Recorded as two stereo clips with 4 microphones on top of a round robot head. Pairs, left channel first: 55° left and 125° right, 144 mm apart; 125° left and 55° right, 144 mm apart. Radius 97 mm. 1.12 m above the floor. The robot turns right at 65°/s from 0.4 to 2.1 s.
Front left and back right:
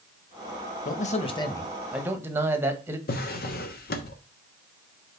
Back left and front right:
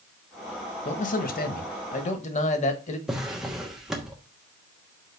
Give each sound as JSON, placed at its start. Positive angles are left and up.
{"t": 0.8, "sound": "a man speaking", "azimuth_deg": 80, "distance_m": 1.5}
{"t": 3.1, "sound": "a drawer", "azimuth_deg": 30, "distance_m": 1.2}